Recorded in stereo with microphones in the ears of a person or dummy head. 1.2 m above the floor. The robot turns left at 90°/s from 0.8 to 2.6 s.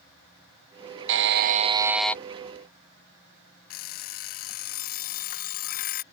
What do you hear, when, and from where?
1.1 s a buzzer: 90° right; by 2.2 s 170° left
3.7 s an alarm clock: 50° left (ahead or behind)